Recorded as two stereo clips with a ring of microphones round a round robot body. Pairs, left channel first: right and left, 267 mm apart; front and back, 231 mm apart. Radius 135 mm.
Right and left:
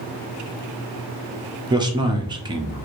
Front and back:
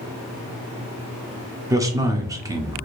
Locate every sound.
1.7 s a man speaking: 130° left, 0.6 m